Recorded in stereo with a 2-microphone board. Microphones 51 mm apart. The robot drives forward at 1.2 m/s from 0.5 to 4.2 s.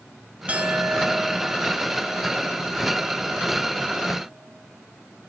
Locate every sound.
0.5 s a clink: 30° right (ahead or behind), 0.8 m; by 4.7 s 5° right (ahead or behind), 4 m